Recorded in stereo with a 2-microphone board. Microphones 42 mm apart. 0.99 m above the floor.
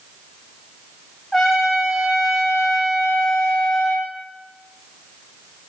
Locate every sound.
1.3 s a trumpet: 5° left (ahead or behind), 0.6 m